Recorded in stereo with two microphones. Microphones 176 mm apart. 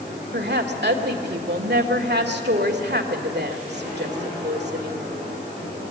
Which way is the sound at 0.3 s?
75° right (ahead or behind).